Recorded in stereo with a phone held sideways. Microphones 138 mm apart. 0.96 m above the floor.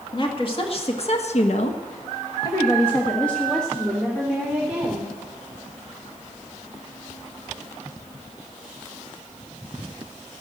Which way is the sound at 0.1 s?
35° left (ahead or behind).